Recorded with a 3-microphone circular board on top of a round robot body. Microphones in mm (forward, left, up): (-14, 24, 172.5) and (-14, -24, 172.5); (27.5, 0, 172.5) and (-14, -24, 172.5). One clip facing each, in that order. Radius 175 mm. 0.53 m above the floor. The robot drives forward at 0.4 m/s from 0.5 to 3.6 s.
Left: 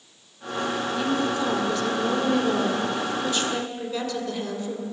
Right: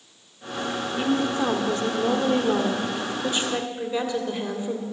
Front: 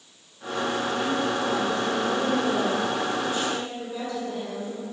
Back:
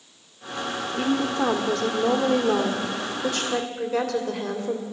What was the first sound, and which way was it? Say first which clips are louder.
A woman speaking: right 3 dB, back 6 dB; 150° right.